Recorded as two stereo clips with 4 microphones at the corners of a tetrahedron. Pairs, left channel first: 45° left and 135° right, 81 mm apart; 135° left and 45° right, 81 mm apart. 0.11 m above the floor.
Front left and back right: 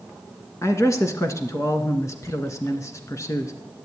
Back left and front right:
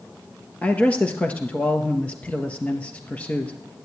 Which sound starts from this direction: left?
A man speaking, at 0.6 s.